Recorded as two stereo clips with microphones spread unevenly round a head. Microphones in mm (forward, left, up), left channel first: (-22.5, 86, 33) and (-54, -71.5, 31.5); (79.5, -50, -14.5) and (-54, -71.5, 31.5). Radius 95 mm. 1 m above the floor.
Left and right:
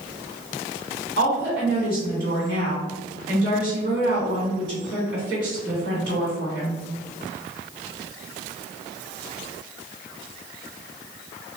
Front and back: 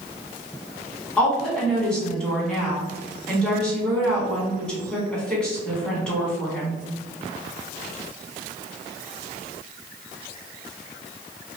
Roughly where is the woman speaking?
Right.